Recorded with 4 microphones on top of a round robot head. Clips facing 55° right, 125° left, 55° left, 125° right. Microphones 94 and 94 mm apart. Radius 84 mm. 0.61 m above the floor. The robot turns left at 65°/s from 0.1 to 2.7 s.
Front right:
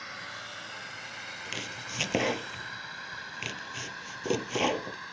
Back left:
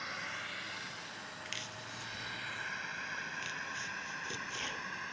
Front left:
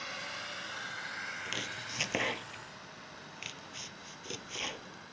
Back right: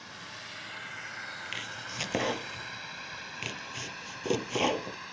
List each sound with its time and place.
0.0 s a drone: 35° left; by 5.1 s 135° right
1.4 s chopping: 5° right; by 5.0 s 85° right